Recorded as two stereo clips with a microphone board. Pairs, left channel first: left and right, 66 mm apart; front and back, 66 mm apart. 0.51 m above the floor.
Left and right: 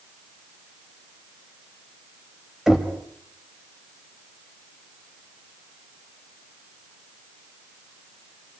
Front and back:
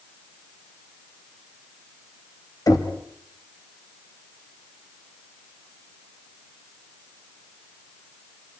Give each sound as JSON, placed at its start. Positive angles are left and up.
{"t": 2.7, "sound": "knocking", "azimuth_deg": -5, "distance_m": 2.5}